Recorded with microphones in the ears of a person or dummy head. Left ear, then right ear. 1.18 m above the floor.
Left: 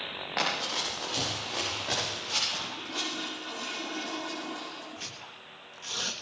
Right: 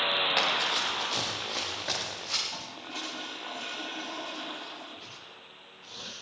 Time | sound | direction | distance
0.4 | running footsteps | 80° right | 5.5 m
2.5 | a toilet flushing | 15° right (ahead or behind) | 4.5 m
5.0 | tearing paper | 60° left (ahead or behind) | 1.9 m